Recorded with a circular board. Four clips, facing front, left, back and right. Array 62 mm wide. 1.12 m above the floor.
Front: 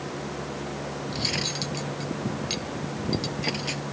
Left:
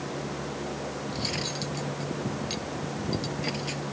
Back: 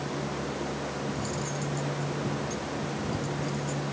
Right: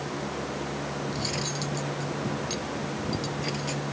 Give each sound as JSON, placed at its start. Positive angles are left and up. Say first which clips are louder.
{"t": 1.1, "sound": "cutlery clinking", "louder": "right 1 dB, front 1 dB", "azimuth_deg": 10}